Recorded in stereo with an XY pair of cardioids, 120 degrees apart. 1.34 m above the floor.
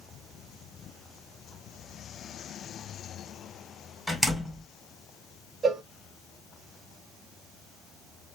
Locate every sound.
4.1 s a door slam: 5° right, 1.2 m
5.6 s a cowbell: 40° right, 0.7 m